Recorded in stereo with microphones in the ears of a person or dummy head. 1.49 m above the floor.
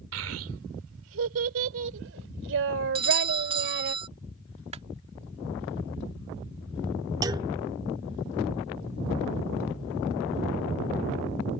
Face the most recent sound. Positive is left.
turn(degrees=-25)  # may be behind; listen again after turning